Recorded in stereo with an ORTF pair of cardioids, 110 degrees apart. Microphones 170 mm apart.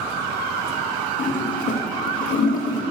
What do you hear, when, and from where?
1.2 s a toilet flushing: 50° left, 2 m